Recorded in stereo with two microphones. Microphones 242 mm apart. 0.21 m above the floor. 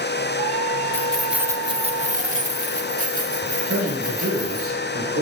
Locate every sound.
0.9 s keys jangling: 10° left (ahead or behind), 0.8 m; by 4.7 s 35° right (ahead or behind), 3 m
3.7 s a man speaking: 65° right (ahead or behind), 3.5 m